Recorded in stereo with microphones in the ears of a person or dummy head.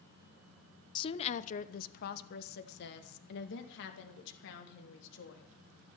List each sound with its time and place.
0.9 s a woman speaking: 25° left (ahead or behind), 0.6 m; by 6.0 s 70° left (ahead or behind), 3.5 m